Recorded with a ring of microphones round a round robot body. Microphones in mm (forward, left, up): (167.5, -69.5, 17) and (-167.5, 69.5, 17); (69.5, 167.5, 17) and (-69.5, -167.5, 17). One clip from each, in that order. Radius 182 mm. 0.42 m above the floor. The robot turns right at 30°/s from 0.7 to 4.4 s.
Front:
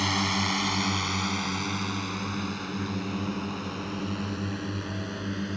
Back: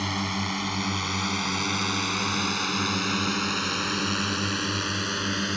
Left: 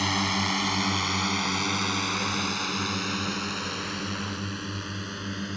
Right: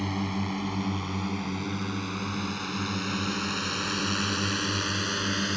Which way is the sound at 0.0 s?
55° left.